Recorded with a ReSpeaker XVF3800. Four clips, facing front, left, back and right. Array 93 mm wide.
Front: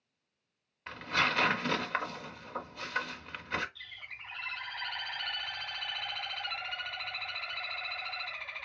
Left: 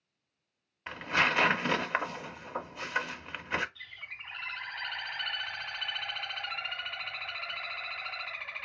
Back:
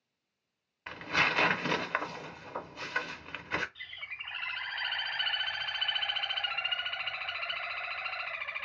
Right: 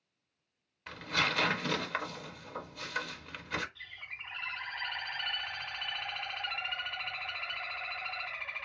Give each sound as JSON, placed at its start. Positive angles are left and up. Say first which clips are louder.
{"t": 0.9, "sound": "tearing paper", "louder": "left 4 dB, back 1 dB", "azimuth_deg": 110, "distance_m": 0.5}
{"t": 3.8, "sound": "a bird", "louder": "left 1 dB, back 3 dB", "azimuth_deg": 180, "distance_m": 1.9}